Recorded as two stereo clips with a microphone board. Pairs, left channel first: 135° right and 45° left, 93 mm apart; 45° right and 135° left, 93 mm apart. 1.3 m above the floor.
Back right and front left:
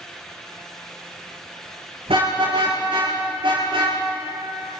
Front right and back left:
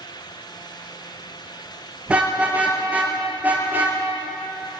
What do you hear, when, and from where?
2.1 s a car horn: 60° left, 9 m; by 4.0 s 65° left, 9 m